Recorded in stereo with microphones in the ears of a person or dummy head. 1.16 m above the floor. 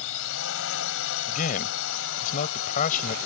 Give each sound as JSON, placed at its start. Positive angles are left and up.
{"t": 0.0, "sound": "a drone", "side_deg": 75}
{"t": 1.3, "sound": "a man speaking", "side_deg": 50}